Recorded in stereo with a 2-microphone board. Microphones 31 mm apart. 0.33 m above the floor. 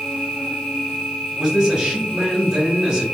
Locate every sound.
0.0 s an insect: 65° right (ahead or behind), 1.0 m
1.4 s a man speaking: 15° right (ahead or behind), 1.1 m